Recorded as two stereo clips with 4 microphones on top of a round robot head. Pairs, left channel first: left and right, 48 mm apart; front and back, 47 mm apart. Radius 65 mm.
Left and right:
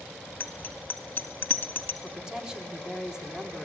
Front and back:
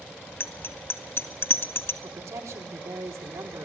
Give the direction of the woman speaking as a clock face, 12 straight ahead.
6 o'clock.